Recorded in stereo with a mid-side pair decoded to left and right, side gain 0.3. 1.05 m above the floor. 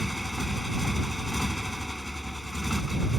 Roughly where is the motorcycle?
Ahead.